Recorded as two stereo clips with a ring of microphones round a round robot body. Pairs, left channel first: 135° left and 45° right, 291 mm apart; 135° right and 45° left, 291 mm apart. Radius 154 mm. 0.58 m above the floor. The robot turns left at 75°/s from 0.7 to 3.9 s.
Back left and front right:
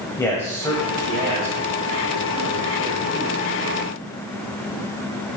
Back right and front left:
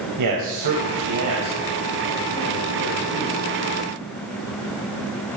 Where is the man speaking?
55° left, 3 m; by 3.5 s 155° right, 3 m.